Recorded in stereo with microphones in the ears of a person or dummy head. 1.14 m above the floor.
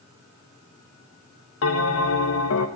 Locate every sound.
1.6 s a bell: 65° left (ahead or behind), 1.2 m